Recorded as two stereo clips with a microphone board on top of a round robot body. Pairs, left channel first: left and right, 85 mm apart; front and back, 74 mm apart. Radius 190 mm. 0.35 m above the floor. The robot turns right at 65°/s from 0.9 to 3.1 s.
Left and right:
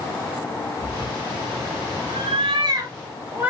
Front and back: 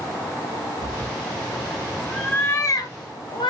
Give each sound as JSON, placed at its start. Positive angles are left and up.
{"t": 0.8, "sound": "a cat meowing", "azimuth_deg": -165, "distance_m": 0.7}